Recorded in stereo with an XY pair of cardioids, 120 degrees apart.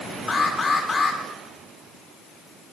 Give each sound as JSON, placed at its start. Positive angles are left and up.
{"t": 0.3, "sound": "an alarm", "azimuth_deg": 25, "distance_m": 3.5}